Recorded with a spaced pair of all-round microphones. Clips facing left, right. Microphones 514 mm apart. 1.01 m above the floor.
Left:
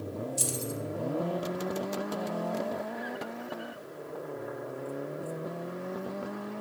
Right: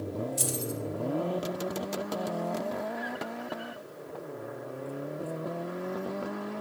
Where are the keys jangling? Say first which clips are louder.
Right 1 dB; 85° right, 0.8 m.